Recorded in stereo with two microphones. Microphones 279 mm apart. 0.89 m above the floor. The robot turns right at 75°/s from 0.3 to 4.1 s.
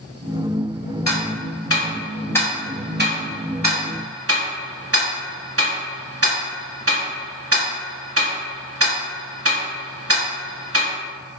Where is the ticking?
65° left (ahead or behind), 0.9 m; by 10.9 s 55° right (ahead or behind), 0.9 m.